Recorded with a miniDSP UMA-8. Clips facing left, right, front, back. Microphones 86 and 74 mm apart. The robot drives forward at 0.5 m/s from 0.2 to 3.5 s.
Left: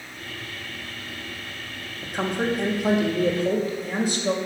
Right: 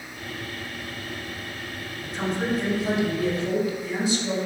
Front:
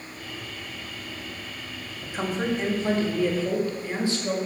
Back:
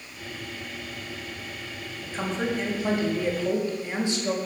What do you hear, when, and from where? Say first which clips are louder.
2.0 s a woman speaking: left 2 dB, front 1 dB; 75° left, 1.3 m; by 4.4 s 115° left, 1.4 m